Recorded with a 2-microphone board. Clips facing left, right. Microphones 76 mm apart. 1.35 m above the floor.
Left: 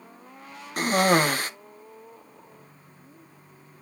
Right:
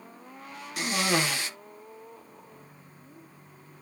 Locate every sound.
0.8 s a cough: 45° left (ahead or behind), 1.0 m